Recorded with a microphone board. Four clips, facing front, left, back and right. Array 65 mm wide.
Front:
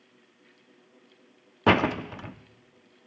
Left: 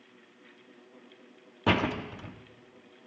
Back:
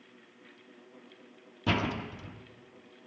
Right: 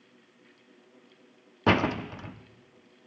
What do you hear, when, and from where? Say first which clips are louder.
1.7 s a door slam: right 3 dB, front 9 dB; 10° right, 0.7 m